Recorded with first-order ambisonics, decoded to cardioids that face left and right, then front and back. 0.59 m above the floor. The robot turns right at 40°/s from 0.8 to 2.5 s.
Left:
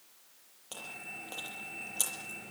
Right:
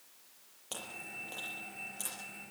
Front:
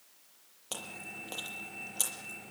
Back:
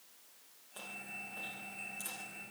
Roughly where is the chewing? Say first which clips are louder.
Even, front 3 dB; ahead.